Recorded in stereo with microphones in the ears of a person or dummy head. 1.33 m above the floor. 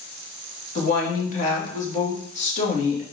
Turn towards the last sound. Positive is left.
turn(degrees=40)  # may be behind; listen again after turning